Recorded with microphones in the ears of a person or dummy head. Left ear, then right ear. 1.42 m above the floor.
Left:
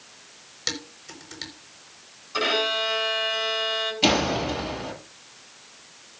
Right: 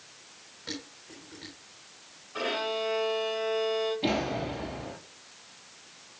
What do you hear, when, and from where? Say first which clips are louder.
0.7 s dishes clattering: left 9 dB; 75° left (ahead or behind), 4.5 m
2.3 s a violin: left 7 dB; 85° left, 8 m
4.0 s a door slam: left 8 dB; 60° left (ahead or behind), 7.5 m